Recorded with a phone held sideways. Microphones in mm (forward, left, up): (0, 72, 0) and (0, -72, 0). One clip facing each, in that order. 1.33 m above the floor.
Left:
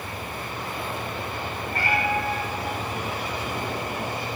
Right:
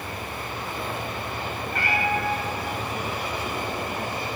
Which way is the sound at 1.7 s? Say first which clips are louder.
Left 1 dB; 35° left (ahead or behind).